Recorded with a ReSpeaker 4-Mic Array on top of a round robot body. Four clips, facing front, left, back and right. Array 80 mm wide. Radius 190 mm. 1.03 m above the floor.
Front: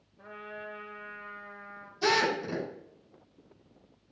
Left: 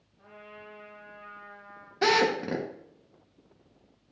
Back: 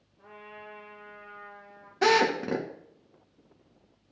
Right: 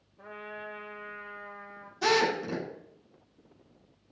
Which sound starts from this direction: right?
A trumpet, at 0.2 s.